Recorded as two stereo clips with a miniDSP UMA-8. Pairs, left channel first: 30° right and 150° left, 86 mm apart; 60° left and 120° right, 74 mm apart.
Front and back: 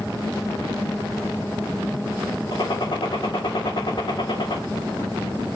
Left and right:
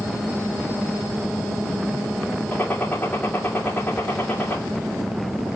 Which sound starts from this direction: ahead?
A gunshot, at 2.5 s.